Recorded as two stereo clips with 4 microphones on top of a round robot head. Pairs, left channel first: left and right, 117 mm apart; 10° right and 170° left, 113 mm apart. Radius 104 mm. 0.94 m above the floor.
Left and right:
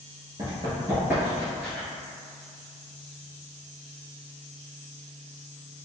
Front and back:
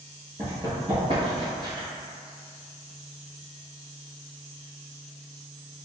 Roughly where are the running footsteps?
Behind right.